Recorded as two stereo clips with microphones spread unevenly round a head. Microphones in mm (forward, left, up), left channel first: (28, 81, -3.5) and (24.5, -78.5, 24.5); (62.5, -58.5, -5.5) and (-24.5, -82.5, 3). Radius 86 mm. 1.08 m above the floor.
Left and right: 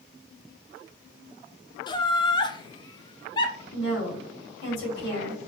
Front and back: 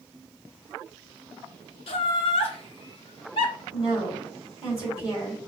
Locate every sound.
1.9 s laughter: 30° left, 1.0 m
3.7 s a woman speaking: 110° left, 2.5 m